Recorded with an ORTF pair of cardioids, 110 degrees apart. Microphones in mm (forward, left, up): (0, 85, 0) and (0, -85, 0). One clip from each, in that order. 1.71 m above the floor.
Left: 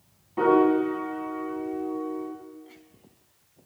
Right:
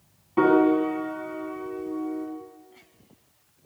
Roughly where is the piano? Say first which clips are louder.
Right 1 dB; ahead right.